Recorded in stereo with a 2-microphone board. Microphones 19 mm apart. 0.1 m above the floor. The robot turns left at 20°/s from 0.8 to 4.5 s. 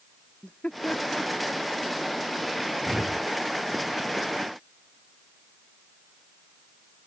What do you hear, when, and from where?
0.4 s laughter: 75° left (ahead or behind); by 1.9 s 55° left (ahead or behind)
2.8 s a whoosh: 45° right (ahead or behind); by 3.3 s 40° right (ahead or behind)